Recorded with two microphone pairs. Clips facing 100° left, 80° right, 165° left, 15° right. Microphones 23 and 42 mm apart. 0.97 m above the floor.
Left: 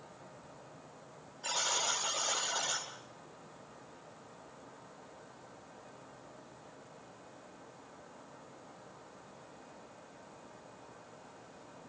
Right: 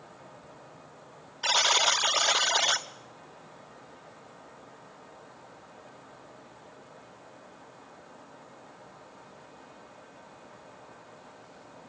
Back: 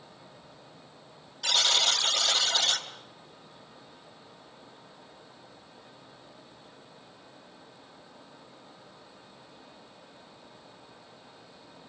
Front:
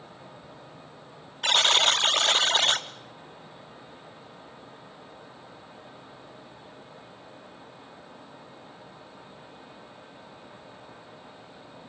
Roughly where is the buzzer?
Ahead right.